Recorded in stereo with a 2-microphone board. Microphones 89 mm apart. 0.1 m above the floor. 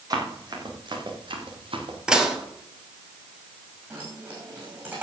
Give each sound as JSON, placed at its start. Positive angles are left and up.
{"t": 0.1, "sound": "running footsteps", "side_deg": -45, "distance_m": 3.5}
{"t": 2.1, "sound": "dishes clattering", "side_deg": -10, "distance_m": 1.7}
{"t": 3.9, "sound": "keys jangling", "side_deg": -20, "distance_m": 5.0}